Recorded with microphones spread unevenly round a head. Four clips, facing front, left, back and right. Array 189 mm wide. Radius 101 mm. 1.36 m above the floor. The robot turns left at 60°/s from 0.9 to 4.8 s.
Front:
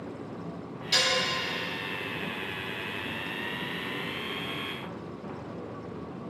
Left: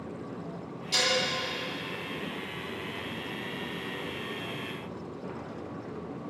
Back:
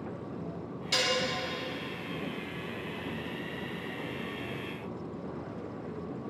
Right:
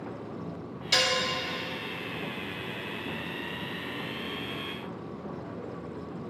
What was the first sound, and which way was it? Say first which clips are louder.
Dishes clattering: right 2 dB, front 1 dB; 80° right.